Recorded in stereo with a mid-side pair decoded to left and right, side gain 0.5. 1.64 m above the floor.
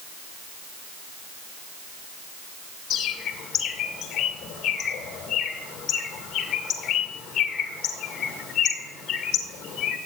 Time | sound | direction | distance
2.9 | a bird | 60° left | 1.9 m